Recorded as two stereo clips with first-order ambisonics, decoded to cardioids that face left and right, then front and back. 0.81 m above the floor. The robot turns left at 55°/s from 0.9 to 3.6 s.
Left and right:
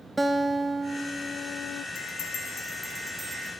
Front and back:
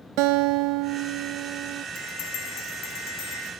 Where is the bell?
55° left, 4 m; by 3.5 s 35° right, 4 m.